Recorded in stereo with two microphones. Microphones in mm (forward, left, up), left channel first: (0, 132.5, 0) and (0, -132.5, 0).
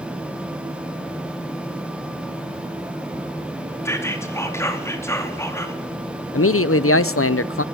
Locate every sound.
3.9 s whispering: 10° left (ahead or behind), 2.5 m
6.3 s a man speaking: 50° left (ahead or behind), 0.7 m